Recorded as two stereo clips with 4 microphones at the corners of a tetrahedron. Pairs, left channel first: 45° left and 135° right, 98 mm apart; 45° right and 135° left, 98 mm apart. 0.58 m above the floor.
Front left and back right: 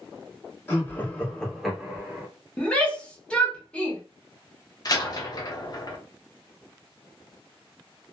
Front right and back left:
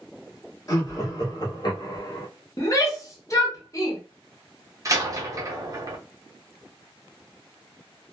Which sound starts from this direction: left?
A door slam, at 4.8 s.